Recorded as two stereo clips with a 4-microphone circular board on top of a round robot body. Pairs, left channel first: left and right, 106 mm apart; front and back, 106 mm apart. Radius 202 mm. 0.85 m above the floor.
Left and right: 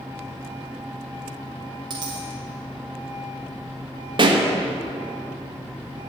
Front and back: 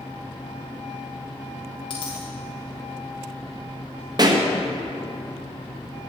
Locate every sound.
1.9 s a dropped coin: 40° right, 0.6 m
4.2 s a pop: 130° right, 1.3 m